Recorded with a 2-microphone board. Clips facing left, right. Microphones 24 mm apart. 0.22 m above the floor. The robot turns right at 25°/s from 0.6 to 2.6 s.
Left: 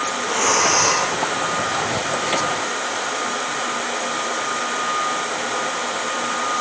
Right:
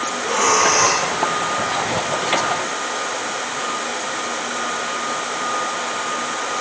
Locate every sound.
0.2 s breathing: 85° right, 8 m; by 1.1 s 75° right (ahead or behind), 8 m